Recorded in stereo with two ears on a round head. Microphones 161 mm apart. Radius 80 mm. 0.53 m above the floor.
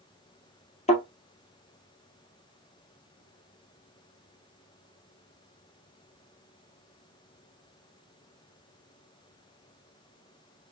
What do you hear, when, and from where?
0.9 s a thud: 35° left (ahead or behind), 1.8 m